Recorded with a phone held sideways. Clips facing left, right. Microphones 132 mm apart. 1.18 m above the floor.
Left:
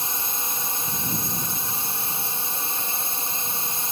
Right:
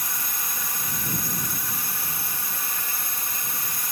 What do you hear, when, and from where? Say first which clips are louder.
0.0 s a drone: left 3 dB; 25° left (ahead or behind)